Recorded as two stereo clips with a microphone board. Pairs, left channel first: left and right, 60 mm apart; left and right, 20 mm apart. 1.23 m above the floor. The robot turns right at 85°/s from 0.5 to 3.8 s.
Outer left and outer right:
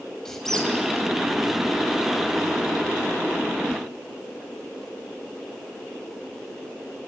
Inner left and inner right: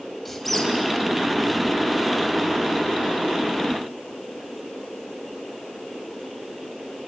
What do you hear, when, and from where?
0.2 s a squeak: 5° left (ahead or behind), 3 m; by 0.7 s 20° left (ahead or behind), 3 m